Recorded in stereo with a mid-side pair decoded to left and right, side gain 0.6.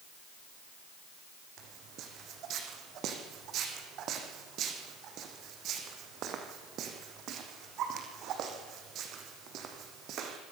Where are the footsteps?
55° right, 5 m.